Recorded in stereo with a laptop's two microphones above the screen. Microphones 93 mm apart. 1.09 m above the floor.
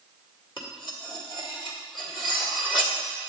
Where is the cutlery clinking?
55° left (ahead or behind), 2 m.